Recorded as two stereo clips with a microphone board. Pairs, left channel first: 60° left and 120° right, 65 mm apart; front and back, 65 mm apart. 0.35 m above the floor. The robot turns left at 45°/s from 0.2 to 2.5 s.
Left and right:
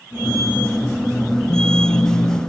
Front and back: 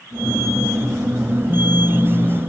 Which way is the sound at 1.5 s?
100° left.